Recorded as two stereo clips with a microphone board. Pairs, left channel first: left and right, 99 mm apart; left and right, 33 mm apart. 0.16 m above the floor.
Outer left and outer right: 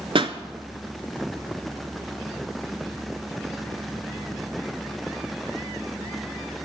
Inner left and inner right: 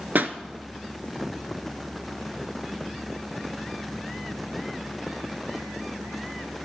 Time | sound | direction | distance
0.1 | a pop | 60° right (ahead or behind) | 0.8 m